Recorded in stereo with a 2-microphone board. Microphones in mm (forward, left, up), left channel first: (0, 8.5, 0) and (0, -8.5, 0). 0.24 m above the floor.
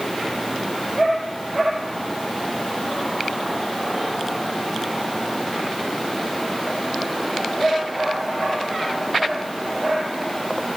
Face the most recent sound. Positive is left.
No sound to turn to.